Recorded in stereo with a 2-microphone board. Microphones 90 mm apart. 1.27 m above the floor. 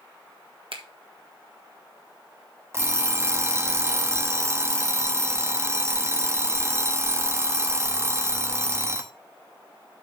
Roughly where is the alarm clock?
Right.